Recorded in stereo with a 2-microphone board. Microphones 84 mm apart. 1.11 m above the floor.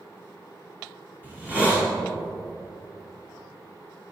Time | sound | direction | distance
1.2 | a hiss | 20° right (ahead or behind) | 2.5 m